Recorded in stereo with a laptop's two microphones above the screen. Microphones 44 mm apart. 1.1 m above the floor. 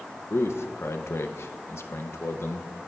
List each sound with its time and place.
0.3 s a man speaking: 70° left (ahead or behind), 0.7 m